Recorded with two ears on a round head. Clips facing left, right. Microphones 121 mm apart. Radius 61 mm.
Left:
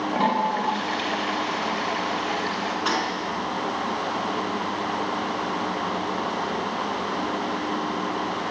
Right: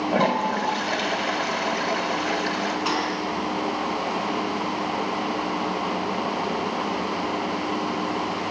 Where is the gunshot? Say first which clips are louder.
Even; 10° right (ahead or behind), 5 m.